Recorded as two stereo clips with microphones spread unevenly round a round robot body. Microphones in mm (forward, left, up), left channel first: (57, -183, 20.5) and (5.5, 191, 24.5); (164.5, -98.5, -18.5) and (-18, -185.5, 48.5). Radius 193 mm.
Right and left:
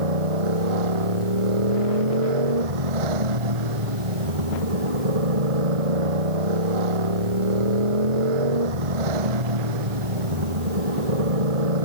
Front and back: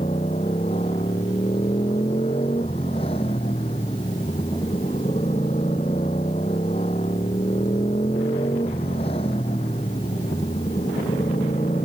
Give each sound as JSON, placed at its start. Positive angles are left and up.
{"t": 0.0, "sound": "a motorcycle", "azimuth_deg": 100}